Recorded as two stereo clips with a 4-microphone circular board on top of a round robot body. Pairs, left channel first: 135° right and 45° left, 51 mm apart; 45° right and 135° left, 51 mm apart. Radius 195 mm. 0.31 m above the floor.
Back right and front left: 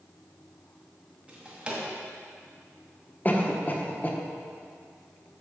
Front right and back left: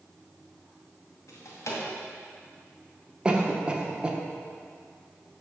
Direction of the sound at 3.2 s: 165° right.